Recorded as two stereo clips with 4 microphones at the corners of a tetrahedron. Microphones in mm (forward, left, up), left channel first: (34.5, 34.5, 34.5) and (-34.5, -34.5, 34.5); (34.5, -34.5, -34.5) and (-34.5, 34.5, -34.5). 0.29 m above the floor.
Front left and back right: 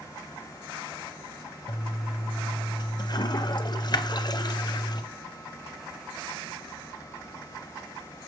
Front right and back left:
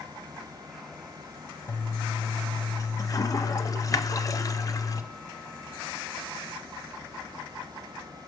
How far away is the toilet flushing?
About 0.5 m.